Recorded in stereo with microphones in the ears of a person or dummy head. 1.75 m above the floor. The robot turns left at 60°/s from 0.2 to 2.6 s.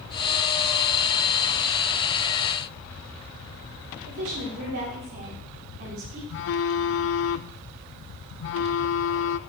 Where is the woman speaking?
40° right (ahead or behind), 4 m.